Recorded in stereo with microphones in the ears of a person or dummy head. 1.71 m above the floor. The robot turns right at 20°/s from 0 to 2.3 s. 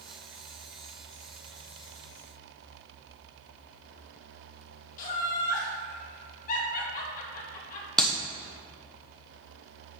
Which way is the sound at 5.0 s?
50° left (ahead or behind).